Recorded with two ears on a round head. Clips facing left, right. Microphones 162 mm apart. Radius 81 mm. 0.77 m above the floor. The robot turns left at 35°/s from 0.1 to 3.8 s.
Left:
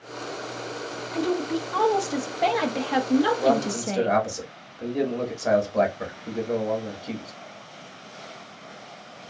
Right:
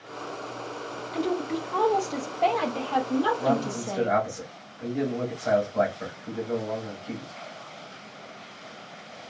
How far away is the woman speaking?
About 0.6 m.